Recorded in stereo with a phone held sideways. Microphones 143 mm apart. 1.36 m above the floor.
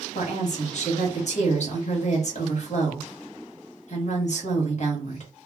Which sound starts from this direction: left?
A woman speaking, at 0.1 s.